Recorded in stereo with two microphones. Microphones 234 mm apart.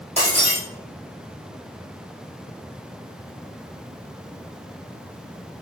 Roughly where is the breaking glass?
Right.